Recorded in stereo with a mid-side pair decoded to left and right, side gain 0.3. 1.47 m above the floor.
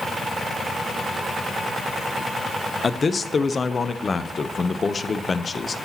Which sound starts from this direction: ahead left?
A man speaking, at 2.8 s.